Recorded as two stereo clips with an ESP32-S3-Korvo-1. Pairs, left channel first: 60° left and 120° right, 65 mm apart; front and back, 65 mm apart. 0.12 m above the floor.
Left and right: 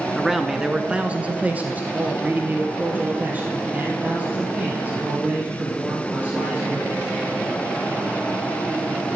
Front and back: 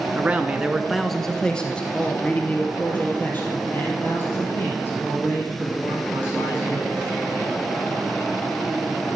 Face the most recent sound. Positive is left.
turn(degrees=-55)